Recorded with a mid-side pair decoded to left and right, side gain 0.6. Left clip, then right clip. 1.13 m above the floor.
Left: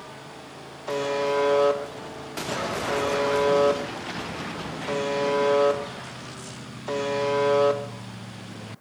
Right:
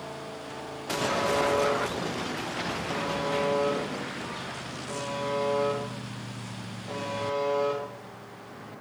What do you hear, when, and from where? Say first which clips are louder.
0.9 s a buzzer: left 2 dB; 55° left, 1.2 m